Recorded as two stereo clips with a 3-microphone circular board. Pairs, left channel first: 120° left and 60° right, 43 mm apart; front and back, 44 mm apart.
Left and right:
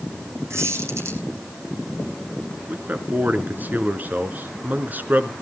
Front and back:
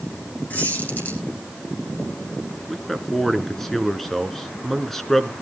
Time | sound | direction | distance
0.5 | a squeak | 50° right | 5 m
2.7 | a man speaking | 85° right | 1.5 m